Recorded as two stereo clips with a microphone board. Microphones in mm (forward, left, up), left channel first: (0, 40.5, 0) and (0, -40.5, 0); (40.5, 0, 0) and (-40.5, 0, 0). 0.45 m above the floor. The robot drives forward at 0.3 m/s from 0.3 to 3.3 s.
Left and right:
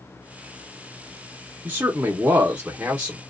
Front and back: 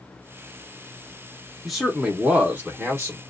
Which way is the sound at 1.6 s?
85° right.